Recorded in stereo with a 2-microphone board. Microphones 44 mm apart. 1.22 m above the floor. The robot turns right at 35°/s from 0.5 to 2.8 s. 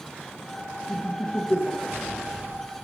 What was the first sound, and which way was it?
Laughter, 75° left (ahead or behind).